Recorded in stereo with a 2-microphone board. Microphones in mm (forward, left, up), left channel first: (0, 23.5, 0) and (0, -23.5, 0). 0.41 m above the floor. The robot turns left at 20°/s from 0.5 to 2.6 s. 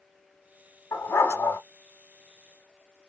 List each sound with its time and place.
0.9 s a dog barking: 70° left (ahead or behind), 1.3 m; by 1.6 s 80° left, 1.3 m